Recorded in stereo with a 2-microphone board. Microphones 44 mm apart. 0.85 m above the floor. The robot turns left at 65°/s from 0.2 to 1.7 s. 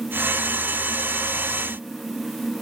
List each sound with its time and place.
Only background noise.